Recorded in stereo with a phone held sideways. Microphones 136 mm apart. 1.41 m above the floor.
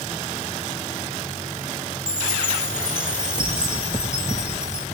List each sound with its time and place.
2.1 s a chime: 5° right (ahead or behind), 2 m